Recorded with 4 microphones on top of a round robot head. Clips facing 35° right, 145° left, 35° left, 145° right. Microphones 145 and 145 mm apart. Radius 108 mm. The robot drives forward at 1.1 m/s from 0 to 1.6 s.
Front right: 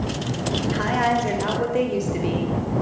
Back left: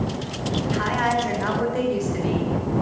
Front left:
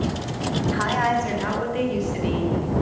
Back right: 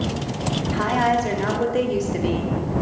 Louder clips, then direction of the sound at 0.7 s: Front right 2 dB, back right 3 dB; 75° right.